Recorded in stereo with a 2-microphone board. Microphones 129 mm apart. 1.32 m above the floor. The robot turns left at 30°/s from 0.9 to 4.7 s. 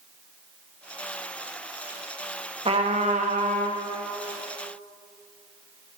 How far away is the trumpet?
About 0.6 m.